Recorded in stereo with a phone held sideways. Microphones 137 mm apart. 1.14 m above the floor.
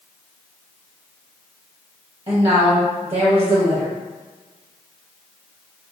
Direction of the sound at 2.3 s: 45° right (ahead or behind).